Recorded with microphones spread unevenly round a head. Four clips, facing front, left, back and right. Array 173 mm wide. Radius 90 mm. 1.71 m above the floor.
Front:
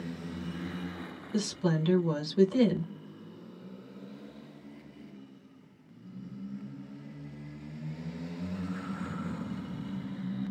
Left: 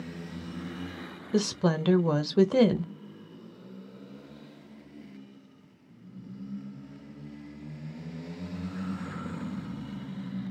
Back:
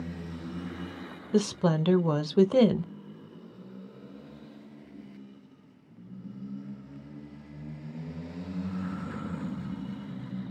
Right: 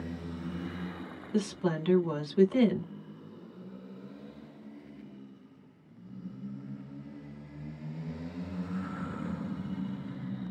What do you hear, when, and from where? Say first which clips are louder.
1.3 s a woman speaking: left 4 dB, back 5 dB; 130° left, 0.7 m